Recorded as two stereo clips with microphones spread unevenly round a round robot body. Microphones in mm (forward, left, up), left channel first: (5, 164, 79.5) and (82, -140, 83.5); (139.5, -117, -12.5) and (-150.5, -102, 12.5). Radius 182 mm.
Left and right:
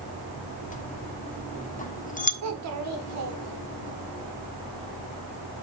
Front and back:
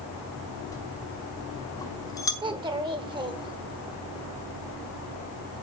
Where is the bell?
60° left, 1.1 m.